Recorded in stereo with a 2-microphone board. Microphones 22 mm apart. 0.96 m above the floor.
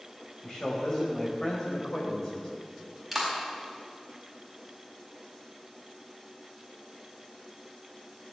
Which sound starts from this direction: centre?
A clap, at 3.1 s.